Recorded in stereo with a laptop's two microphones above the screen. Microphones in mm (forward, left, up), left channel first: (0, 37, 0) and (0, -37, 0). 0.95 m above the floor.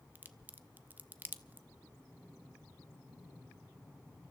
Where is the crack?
25° right (ahead or behind), 0.7 m.